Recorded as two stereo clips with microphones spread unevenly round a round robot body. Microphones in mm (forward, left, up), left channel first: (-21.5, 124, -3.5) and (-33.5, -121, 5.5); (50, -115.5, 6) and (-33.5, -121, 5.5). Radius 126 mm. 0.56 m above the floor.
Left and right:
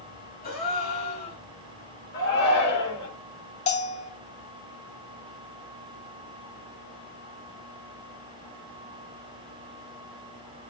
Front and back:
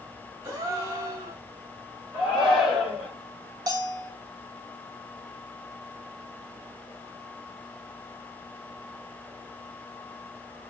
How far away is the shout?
About 2 m.